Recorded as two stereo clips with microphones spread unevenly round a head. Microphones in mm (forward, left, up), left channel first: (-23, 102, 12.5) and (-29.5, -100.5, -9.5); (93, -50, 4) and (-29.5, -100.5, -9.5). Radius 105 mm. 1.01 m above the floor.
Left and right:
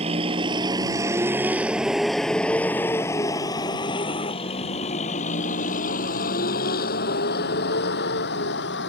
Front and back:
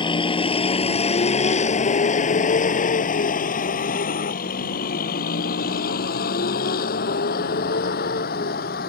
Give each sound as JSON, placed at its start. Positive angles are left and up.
{"t": 0.0, "sound": "a vehicle", "azimuth_deg": -30}